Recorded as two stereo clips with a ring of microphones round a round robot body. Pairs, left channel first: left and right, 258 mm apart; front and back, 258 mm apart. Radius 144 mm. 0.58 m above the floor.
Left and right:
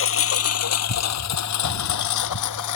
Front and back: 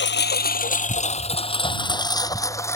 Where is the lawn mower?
50° left; by 2.8 s 80° left.